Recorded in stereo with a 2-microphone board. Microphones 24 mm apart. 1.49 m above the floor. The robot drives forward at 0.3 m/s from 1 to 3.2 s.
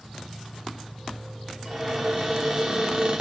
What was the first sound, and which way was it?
An insect, 10° left (ahead or behind).